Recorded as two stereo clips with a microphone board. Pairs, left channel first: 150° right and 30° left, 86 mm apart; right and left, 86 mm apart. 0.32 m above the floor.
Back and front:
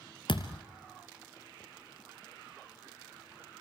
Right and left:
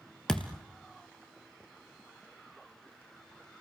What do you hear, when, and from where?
0.3 s a thud: 175° right, 1.6 m